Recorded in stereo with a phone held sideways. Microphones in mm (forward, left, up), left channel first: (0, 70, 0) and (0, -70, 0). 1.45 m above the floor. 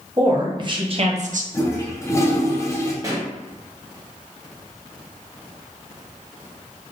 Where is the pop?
25° right (ahead or behind), 0.8 m.